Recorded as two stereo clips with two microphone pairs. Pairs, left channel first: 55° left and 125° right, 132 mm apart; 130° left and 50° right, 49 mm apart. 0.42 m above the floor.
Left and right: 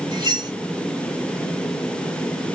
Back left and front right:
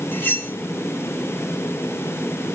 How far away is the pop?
No pop in this recording.